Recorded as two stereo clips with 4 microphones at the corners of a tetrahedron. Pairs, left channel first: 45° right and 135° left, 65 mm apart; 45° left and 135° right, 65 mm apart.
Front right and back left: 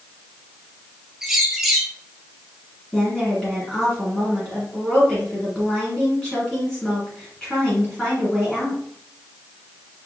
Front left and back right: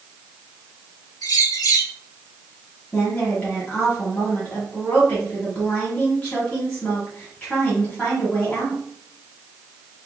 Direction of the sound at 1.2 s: 50° left.